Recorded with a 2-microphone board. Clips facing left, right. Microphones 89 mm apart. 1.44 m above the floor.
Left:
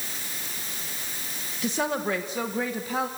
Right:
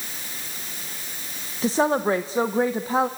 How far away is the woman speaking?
About 0.9 m.